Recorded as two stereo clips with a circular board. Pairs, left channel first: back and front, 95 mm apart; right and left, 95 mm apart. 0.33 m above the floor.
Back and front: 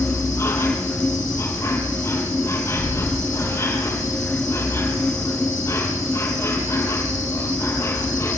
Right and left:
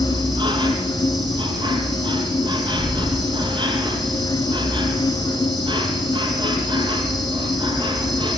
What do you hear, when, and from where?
0.0 s an insect: 120° left, 4 m